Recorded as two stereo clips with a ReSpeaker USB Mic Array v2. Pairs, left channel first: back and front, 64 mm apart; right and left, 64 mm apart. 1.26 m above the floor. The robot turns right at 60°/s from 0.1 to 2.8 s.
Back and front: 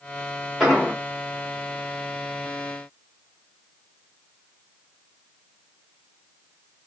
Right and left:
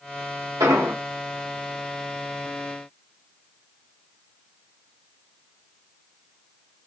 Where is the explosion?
95° left, 3 m; by 0.9 s 115° left, 3 m.